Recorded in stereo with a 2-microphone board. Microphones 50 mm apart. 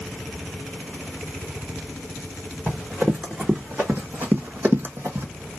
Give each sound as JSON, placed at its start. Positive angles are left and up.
{"t": 2.7, "sound": "running footsteps", "side_deg": -15, "distance_m": 1.7}